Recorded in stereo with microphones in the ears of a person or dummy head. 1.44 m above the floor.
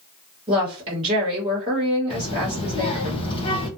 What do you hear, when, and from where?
0.5 s a woman speaking: 25° right (ahead or behind), 1.3 m
2.1 s a child speaking: 30° left (ahead or behind), 0.8 m